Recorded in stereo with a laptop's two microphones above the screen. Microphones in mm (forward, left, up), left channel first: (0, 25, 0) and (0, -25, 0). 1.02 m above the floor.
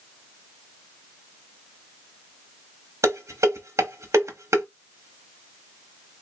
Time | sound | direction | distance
3.0 | dishes clattering | 70° right (ahead or behind) | 1.2 m